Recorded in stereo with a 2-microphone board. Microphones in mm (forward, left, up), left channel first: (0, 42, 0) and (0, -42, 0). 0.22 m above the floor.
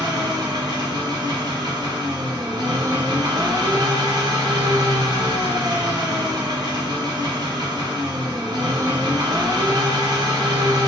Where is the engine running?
65° right (ahead or behind), 1.3 m.